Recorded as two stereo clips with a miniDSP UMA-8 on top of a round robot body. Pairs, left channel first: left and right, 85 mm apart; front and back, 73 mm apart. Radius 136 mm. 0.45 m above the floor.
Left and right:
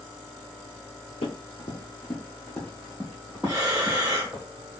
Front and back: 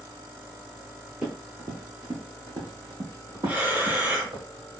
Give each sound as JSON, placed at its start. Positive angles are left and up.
{"t": 1.2, "sound": "running footsteps", "azimuth_deg": 105, "distance_m": 0.6}
{"t": 3.5, "sound": "breathing", "azimuth_deg": -120, "distance_m": 1.5}